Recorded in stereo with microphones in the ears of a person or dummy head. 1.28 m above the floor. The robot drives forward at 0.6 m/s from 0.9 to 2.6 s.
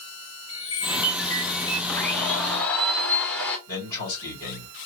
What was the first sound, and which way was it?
A chime, 30° left (ahead or behind).